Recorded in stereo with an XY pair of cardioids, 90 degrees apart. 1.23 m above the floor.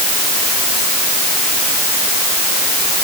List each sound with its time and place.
Only background noise.